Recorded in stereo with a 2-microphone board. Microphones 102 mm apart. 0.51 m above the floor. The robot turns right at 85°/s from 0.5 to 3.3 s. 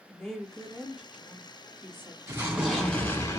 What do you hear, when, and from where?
0.1 s a woman speaking: 5° left (ahead or behind), 0.7 m; by 2.2 s 15° right (ahead or behind), 0.7 m
2.3 s an explosion: 40° right, 1.0 m; by 3.4 s 45° left, 1.0 m